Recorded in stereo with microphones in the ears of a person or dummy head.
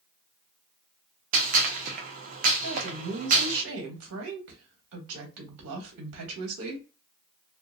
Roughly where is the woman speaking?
Right.